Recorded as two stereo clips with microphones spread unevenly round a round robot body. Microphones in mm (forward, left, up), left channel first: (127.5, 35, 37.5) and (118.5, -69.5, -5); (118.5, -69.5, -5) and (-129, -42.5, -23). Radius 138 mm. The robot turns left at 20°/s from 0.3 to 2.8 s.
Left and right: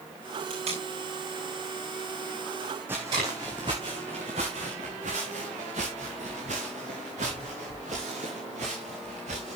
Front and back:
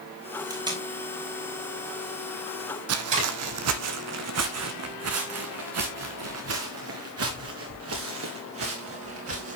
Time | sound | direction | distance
0.5 | tape being pulled | 110° right | 5 m
2.9 | footsteps | 170° left | 1.1 m